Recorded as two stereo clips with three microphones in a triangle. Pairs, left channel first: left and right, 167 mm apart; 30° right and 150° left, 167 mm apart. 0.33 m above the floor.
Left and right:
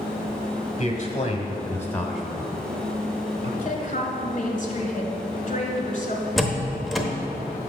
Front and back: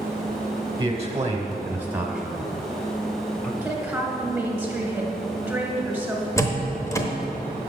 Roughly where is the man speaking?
Left.